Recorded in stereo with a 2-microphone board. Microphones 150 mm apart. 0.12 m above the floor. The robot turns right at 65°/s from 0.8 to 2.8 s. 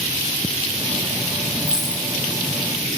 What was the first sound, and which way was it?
A dropped coin, 15° right (ahead or behind).